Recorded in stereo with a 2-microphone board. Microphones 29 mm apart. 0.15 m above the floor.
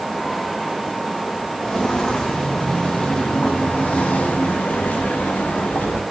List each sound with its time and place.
1.6 s footsteps: 20° left (ahead or behind), 3.5 m; by 6.0 s 85° left, 3 m